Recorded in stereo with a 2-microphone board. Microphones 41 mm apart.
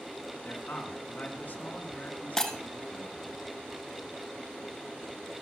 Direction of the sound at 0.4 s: 50° left (ahead or behind).